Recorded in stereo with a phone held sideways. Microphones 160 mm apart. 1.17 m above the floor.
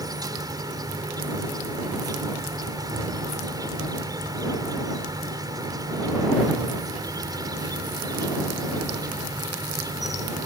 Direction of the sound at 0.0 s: 25° right (ahead or behind).